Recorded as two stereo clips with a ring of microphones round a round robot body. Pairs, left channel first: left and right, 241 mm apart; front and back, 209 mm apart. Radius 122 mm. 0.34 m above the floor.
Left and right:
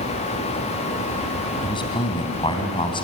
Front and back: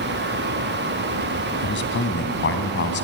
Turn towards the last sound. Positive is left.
turn(degrees=20)